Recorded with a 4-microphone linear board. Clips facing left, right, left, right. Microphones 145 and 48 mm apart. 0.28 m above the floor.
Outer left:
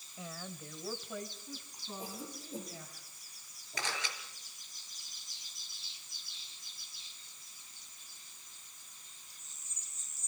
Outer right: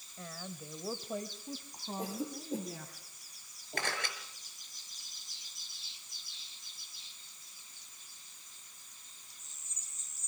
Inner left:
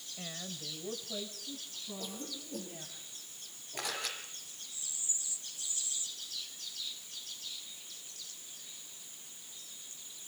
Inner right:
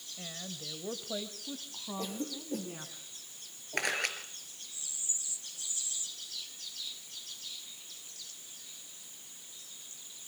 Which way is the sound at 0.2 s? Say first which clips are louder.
Even, even; 10° left (ahead or behind).